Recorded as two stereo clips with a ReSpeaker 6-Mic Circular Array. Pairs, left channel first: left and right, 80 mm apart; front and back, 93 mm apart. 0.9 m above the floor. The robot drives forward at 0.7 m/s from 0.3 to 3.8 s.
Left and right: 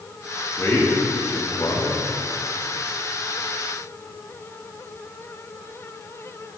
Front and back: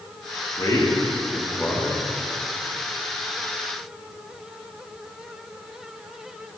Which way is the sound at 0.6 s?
40° left.